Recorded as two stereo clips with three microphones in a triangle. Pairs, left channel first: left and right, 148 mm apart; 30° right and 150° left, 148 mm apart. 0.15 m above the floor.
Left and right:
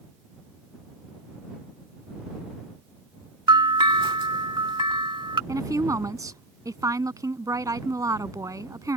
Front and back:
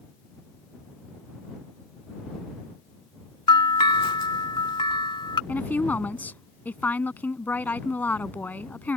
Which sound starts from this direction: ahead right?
A bell, at 3.5 s.